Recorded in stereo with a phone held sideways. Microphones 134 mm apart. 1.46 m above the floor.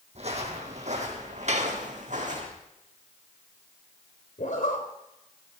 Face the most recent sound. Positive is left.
turn(degrees=75)  # may be behind; listen again after turning